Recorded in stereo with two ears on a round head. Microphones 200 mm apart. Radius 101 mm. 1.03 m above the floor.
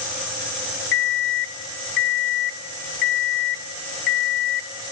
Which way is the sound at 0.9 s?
55° left (ahead or behind).